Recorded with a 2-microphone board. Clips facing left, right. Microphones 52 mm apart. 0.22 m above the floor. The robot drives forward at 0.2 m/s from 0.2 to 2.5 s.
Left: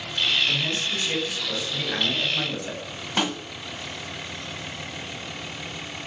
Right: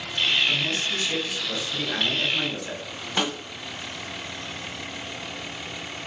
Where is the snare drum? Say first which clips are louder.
Left 1 dB; 10° left (ahead or behind), 1.0 m.